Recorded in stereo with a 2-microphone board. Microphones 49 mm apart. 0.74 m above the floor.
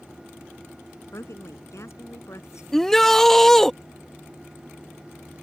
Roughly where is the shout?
Centre.